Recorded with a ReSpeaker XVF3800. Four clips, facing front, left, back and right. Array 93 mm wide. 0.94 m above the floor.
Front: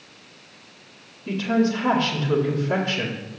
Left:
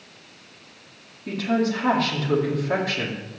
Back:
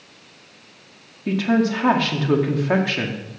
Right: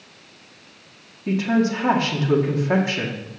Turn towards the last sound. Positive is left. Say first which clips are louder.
# right 3 dB, back 2 dB
turn(degrees=-165)